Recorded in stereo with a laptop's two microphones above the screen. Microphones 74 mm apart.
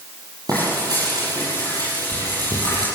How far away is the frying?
About 7.5 m.